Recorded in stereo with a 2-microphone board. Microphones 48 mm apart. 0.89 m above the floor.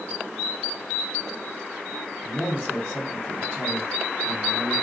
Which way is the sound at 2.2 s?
25° left (ahead or behind).